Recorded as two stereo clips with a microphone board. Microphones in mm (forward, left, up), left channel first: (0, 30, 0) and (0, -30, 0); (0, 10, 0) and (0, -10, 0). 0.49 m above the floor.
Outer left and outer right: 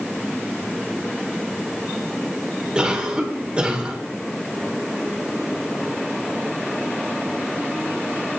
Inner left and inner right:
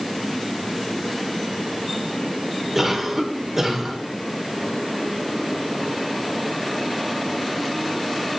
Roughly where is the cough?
Centre.